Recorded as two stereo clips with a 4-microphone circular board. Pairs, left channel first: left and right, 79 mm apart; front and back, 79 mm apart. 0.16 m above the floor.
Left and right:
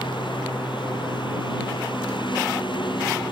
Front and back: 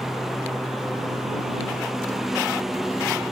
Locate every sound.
0.0 s a lawn mower: 95° left